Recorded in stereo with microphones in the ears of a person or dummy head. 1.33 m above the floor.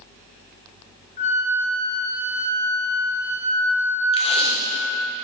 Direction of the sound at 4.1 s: 30° left (ahead or behind).